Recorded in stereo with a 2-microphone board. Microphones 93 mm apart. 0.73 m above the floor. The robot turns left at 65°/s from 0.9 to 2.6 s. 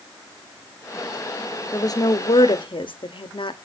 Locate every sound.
1.7 s a woman speaking: 145° left, 1.1 m; by 3.6 s 85° left, 1.1 m